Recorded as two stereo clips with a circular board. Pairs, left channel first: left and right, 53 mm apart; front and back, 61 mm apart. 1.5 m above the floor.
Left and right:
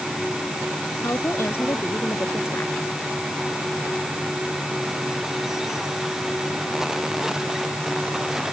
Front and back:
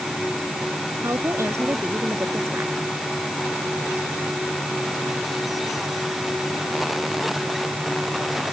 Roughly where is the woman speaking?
Behind left.